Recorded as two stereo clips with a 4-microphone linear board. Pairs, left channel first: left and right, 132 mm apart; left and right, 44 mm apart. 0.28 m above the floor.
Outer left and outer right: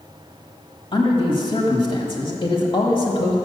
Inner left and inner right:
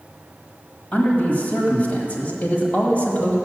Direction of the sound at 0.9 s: 40° left (ahead or behind).